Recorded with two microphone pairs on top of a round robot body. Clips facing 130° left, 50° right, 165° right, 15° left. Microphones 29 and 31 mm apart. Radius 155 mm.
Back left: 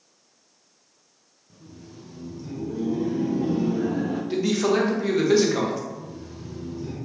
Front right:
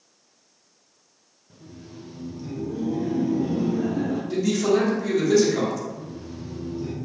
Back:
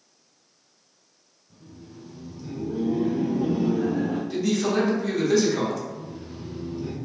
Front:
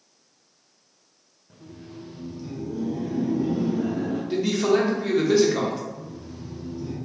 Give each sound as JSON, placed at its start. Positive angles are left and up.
{"t": 1.5, "sound": "laughter", "azimuth_deg": 25, "distance_m": 0.7}
{"t": 4.3, "sound": "a man speaking", "azimuth_deg": 80, "distance_m": 0.9}
{"t": 5.9, "sound": "laughter", "azimuth_deg": -120, "distance_m": 0.6}